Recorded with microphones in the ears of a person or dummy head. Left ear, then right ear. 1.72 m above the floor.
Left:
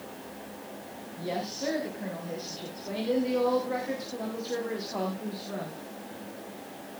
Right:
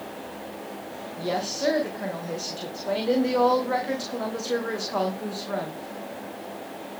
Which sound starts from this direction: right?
A woman speaking, at 1.2 s.